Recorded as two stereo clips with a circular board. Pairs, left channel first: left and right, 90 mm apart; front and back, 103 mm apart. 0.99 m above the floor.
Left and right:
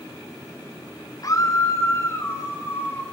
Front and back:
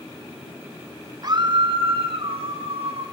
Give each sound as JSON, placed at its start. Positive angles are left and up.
{"t": 1.2, "sound": "a scream", "azimuth_deg": 135, "distance_m": 0.8}